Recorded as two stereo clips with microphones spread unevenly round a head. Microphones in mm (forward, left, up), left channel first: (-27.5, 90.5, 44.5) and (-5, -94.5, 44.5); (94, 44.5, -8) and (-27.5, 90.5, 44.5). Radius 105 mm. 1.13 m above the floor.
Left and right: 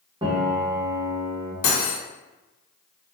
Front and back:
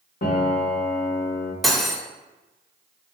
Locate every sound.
0.2 s a piano: 30° right, 0.7 m
1.6 s cutlery clinking: 75° left, 0.7 m